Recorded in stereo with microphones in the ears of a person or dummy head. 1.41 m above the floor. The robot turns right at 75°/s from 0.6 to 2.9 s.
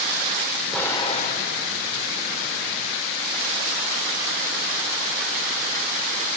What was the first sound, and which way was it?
An explosion, 5° left (ahead or behind).